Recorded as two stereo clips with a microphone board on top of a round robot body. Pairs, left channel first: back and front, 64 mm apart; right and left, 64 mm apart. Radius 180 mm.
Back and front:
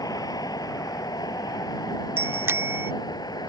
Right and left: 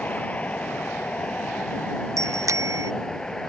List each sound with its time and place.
0.0 s a vehicle: 160° right; by 3.5 s 170° right
2.2 s a bicycle bell: 50° left